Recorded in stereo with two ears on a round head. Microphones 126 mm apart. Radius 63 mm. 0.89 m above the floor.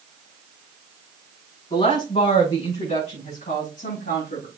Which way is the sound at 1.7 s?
35° left (ahead or behind).